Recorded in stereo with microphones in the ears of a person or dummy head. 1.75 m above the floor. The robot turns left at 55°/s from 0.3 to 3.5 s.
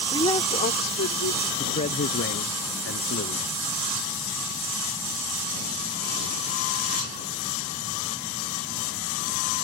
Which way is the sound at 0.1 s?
160° left.